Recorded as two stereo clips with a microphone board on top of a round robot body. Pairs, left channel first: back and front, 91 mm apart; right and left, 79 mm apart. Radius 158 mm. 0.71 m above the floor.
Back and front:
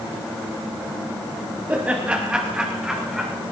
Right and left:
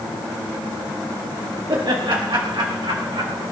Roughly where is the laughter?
Left.